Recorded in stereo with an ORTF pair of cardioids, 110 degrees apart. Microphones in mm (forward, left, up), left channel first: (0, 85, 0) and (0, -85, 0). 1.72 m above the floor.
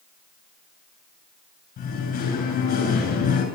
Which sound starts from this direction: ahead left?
Singing, at 1.8 s.